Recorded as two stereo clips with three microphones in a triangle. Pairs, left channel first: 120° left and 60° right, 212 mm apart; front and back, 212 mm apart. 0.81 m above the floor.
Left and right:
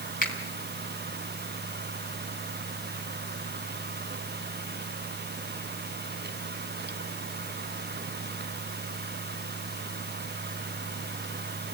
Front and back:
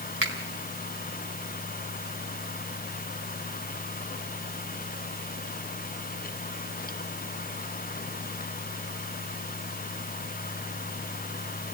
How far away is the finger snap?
About 4.5 m.